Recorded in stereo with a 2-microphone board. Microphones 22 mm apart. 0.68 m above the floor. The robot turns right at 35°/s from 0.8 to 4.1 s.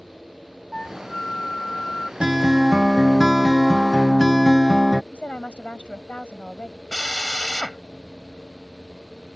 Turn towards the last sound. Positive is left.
turn(degrees=35)  # may be behind; listen again after turning